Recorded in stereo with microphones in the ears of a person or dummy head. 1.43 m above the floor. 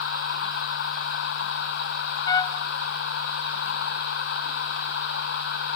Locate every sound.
0.0 s a machine running: 70° left (ahead or behind)
2.3 s a trumpet: 20° left (ahead or behind)